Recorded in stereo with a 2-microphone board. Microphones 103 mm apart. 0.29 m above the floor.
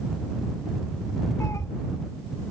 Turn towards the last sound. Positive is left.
turn(degrees=30)  # may be behind; listen again after turning